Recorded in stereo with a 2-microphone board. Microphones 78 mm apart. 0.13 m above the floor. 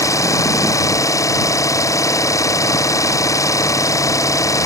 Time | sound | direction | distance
0.0 | an engine running | 45° left (ahead or behind) | ?